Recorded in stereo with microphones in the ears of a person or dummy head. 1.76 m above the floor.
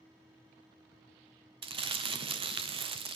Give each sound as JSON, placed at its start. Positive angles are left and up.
{"t": 1.6, "sound": "crumpling", "side_deg": -25, "distance_m": 0.7}